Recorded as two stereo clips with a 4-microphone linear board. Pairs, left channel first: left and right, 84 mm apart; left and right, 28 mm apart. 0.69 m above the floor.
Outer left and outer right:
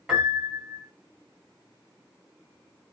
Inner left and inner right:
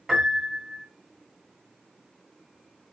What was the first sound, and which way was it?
A piano, 5° right (ahead or behind).